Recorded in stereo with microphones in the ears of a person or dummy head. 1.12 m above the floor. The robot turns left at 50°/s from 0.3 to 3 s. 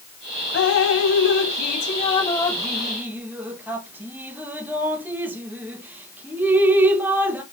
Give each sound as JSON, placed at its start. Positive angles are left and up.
{"t": 0.5, "sound": "dripping", "side_deg": 65, "distance_m": 0.6}